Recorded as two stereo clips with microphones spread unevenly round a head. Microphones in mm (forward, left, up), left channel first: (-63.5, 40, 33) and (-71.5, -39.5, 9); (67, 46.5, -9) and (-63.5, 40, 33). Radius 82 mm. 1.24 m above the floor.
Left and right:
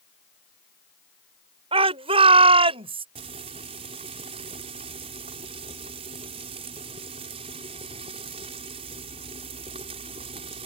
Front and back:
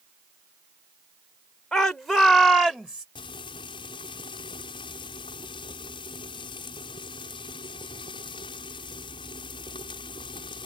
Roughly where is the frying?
Ahead right.